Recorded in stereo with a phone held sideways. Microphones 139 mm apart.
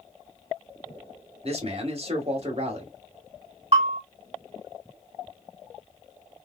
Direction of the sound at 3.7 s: 50° right (ahead or behind).